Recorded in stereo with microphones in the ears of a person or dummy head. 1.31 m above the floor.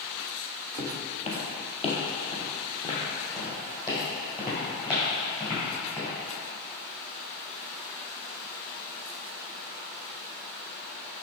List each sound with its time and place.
0.8 s footsteps: 35° left (ahead or behind), 1.8 m; by 6.1 s 15° left (ahead or behind), 5.5 m